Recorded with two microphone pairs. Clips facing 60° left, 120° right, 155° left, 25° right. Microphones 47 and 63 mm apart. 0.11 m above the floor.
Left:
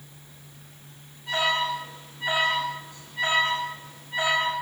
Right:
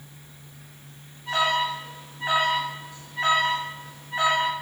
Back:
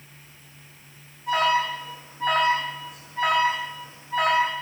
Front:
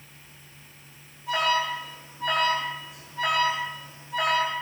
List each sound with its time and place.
1.3 s an alarm: 175° left, 6 m